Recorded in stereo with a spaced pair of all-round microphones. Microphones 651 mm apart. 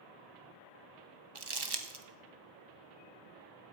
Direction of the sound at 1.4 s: 40° right (ahead or behind).